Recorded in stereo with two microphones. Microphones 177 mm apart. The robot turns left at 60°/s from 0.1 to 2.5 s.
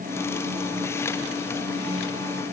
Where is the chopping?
No chopping in this recording.